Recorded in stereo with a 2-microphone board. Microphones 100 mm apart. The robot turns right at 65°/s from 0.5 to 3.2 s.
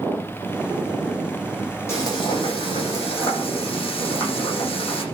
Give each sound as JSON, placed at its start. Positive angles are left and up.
{"t": 1.9, "sound": "frying", "azimuth_deg": 25, "distance_m": 9.0}